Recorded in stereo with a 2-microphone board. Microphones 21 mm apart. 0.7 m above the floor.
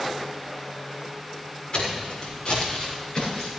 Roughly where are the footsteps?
Left.